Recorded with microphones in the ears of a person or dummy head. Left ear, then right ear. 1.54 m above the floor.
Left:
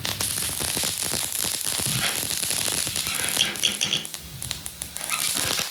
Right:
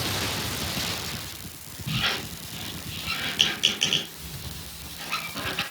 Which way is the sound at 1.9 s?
65° left (ahead or behind).